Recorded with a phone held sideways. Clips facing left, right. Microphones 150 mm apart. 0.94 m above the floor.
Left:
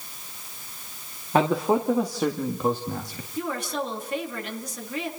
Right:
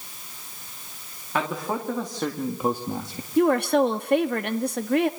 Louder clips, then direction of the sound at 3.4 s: Right 11 dB; 65° right (ahead or behind).